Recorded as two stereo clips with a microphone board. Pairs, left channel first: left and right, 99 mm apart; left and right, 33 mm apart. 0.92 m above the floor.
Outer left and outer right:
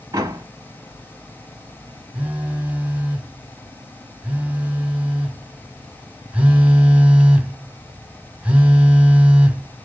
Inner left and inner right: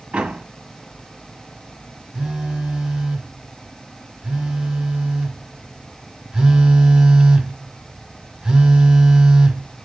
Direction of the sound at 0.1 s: 35° right (ahead or behind).